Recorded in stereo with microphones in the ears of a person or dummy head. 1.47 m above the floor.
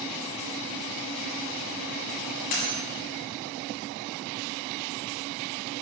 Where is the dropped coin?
50° left (ahead or behind), 2 m.